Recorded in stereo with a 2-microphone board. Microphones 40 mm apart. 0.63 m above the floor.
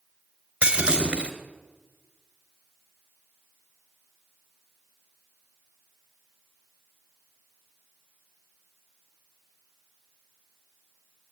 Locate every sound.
0.6 s breaking glass: 30° right (ahead or behind), 3 m